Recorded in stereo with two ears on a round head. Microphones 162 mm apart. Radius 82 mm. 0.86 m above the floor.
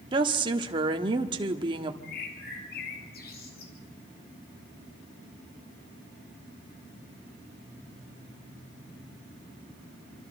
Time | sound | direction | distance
0.1 | a woman speaking | 25° right (ahead or behind) | 1.4 m
2.0 | a bird | 55° left (ahead or behind) | 3 m